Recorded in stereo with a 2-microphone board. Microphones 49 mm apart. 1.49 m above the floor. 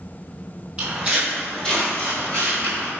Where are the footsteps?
25° right (ahead or behind), 1.6 m; by 2.9 s 40° left (ahead or behind), 2.5 m.